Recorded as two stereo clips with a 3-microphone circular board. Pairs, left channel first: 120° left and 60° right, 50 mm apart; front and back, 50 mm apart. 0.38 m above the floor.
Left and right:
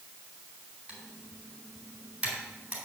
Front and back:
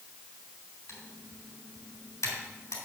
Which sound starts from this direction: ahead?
Typing on a keyboard, at 0.9 s.